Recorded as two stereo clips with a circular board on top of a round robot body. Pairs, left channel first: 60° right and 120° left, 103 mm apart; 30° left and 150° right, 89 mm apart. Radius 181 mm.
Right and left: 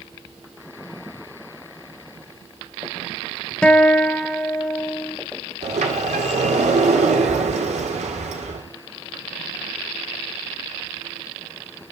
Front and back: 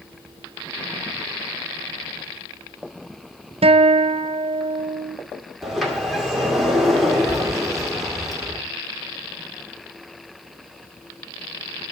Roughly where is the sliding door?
Behind left.